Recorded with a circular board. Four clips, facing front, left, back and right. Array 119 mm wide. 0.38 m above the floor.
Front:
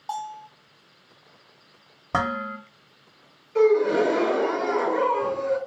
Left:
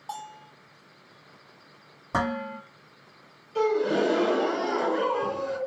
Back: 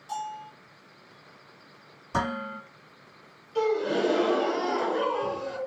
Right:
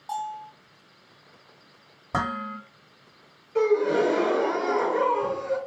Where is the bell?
5° left, 1.9 m.